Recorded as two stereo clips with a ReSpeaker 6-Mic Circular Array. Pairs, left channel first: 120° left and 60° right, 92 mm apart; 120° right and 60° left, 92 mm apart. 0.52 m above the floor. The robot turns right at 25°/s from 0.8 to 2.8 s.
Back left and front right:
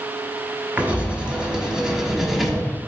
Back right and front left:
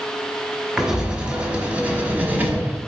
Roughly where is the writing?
Ahead.